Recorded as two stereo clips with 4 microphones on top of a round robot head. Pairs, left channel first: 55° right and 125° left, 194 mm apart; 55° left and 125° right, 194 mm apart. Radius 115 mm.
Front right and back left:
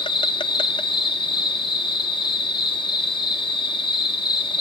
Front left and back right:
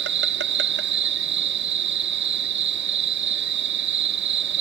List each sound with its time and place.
0.0 s an insect: 115° right, 1.1 m